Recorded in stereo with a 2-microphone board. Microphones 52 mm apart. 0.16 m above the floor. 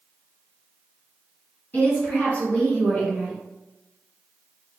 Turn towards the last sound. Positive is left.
turn(degrees=10)  # may be behind; listen again after turning